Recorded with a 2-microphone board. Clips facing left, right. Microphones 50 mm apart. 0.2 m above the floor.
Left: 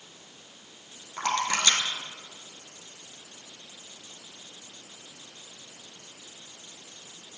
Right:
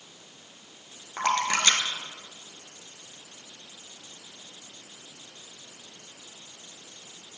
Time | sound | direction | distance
1.2 | a splash | 30° right (ahead or behind) | 1.3 m